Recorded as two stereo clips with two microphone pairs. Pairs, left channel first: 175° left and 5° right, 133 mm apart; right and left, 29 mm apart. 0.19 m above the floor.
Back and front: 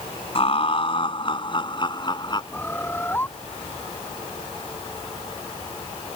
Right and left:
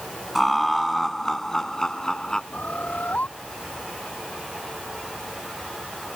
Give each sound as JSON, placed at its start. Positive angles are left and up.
{"t": 0.3, "sound": "laughter", "azimuth_deg": 180}
{"t": 2.5, "sound": "a bird", "azimuth_deg": -110}